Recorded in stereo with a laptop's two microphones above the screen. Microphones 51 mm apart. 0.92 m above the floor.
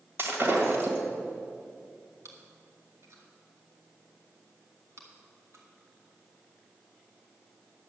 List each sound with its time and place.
0.2 s breaking glass: 50° right (ahead or behind), 1.6 m
2.2 s chewing: 70° right (ahead or behind), 2 m